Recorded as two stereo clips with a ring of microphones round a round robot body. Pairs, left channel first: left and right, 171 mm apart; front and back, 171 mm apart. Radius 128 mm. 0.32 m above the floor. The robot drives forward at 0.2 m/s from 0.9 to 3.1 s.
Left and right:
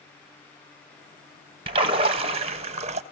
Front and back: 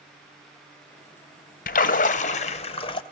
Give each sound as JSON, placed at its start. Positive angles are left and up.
{"t": 1.7, "sound": "a splash", "azimuth_deg": -30, "distance_m": 0.7}